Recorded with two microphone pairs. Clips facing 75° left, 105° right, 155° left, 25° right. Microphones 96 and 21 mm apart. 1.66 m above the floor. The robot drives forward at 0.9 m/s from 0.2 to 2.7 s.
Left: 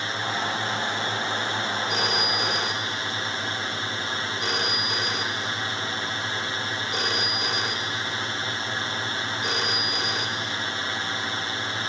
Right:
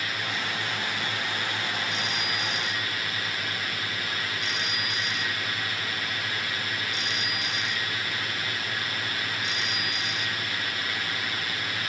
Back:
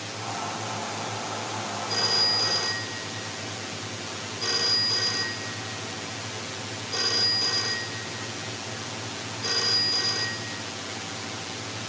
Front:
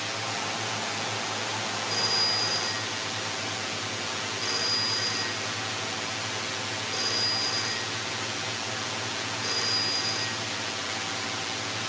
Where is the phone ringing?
80° left; by 10.7 s 90° left.